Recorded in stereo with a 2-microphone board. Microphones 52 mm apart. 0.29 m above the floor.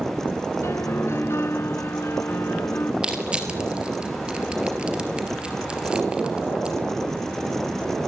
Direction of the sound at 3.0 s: 20° right (ahead or behind).